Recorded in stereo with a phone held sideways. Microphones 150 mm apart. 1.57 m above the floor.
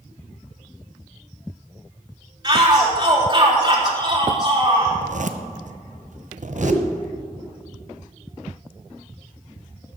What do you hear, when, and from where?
2.4 s a shout: 30° right (ahead or behind), 3.5 m
4.9 s a zipper: 60° right (ahead or behind), 0.8 m
6.6 s a whoosh: centre (ahead or behind), 6 m